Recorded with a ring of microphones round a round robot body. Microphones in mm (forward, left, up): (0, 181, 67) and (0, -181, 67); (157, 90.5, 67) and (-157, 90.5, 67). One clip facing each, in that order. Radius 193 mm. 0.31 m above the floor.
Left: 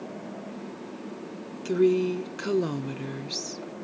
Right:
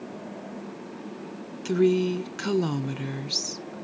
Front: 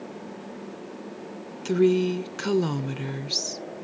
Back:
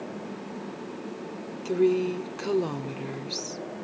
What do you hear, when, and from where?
1.6 s a woman speaking: 30° right